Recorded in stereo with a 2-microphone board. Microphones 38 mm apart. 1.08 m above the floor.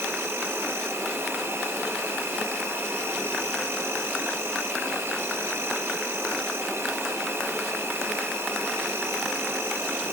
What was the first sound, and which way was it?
An insect, 80° right.